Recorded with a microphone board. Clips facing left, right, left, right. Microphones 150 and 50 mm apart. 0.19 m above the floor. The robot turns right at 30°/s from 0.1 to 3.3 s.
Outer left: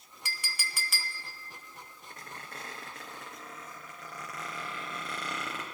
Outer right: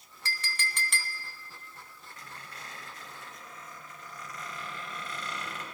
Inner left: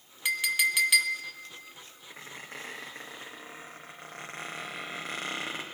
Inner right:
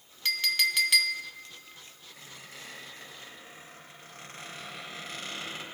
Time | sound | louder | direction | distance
0.2 | a clink | outer right 5 dB, inner left 2 dB | 15° left (ahead or behind) | 0.7 m
2.1 | a squeak | outer left 3 dB, inner left 6 dB | 35° left (ahead or behind) | 2.5 m